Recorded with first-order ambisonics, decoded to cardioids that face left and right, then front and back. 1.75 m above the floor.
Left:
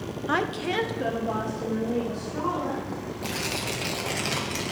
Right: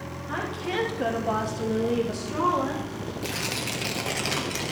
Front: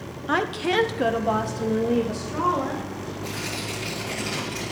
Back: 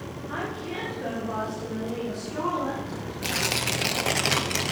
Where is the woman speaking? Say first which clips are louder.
Left 4 dB, front 10 dB; 35° left, 1.0 m; by 3.1 s 60° right, 3 m.